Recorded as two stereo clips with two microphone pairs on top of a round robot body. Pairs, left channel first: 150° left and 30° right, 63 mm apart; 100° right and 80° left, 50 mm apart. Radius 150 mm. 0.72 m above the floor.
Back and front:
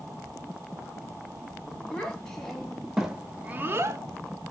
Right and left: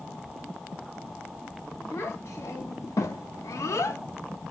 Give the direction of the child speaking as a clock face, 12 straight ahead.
4 o'clock.